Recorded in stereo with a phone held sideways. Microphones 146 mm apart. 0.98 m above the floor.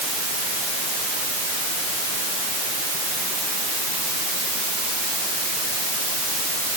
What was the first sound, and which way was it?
Only background noise.